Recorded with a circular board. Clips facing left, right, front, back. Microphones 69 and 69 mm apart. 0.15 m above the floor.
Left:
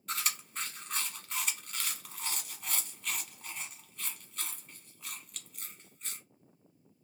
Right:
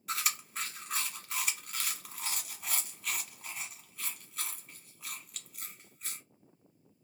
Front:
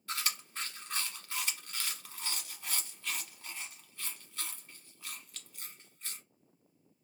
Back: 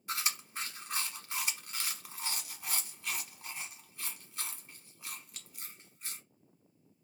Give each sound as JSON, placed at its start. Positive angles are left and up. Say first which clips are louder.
{"t": 0.1, "sound": "chewing", "louder": "right 1 dB, back 1 dB", "azimuth_deg": -165, "distance_m": 1.0}